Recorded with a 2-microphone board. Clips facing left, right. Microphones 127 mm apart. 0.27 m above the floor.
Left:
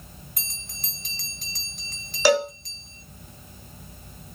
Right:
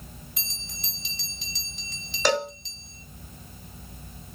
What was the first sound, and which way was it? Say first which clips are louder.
A bell: right 1 dB; 50° left (ahead or behind).